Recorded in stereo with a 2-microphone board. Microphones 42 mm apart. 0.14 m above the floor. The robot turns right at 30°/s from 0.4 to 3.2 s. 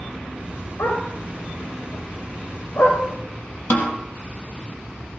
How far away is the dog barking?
About 8 m.